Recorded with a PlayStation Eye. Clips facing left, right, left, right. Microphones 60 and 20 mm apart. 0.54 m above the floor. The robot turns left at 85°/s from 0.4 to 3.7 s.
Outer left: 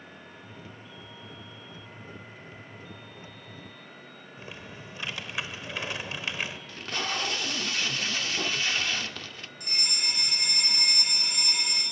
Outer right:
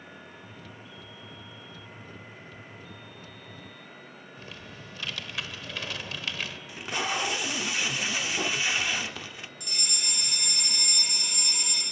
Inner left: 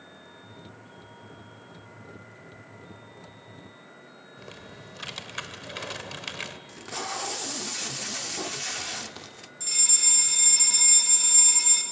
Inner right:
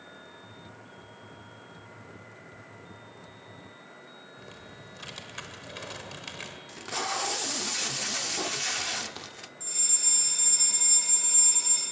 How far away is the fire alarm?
About 3 m.